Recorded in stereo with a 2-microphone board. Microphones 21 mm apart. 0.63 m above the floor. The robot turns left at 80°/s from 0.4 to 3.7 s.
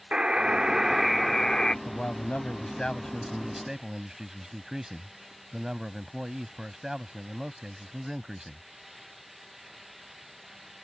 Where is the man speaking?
125° left; by 8.6 s 25° right.